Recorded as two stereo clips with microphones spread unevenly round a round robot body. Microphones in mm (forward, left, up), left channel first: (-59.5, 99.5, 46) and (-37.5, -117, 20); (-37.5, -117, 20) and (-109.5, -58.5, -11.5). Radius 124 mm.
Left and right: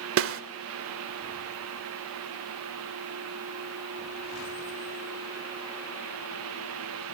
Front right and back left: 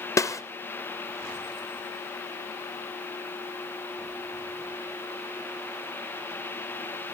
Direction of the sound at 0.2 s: 105° right.